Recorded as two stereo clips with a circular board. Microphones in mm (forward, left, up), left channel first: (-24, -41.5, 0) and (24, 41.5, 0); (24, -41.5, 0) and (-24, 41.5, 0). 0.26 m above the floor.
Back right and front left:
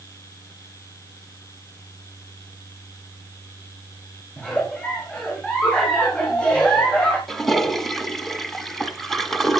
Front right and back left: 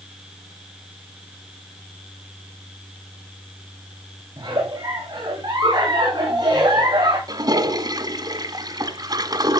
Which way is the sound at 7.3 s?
155° left.